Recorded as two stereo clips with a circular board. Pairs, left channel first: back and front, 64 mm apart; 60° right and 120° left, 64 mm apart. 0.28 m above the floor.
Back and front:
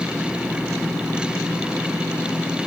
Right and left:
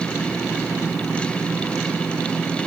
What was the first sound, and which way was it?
Only background noise.